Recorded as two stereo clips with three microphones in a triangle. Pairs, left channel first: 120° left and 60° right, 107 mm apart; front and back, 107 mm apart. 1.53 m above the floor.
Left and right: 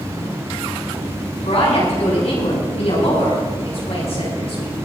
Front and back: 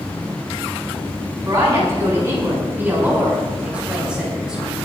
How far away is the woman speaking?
About 7.5 m.